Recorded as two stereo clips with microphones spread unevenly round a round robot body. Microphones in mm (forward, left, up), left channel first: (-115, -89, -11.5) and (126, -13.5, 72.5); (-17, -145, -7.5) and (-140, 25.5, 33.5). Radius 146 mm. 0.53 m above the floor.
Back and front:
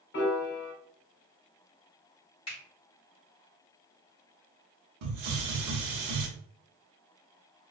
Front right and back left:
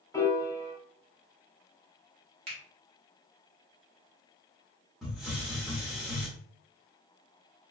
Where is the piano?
130° right, 0.8 m.